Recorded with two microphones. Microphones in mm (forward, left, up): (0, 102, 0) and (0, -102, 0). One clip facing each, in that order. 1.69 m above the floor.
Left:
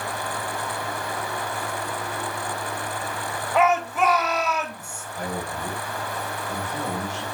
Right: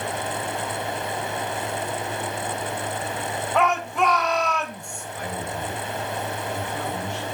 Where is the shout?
5° left (ahead or behind), 4.5 m.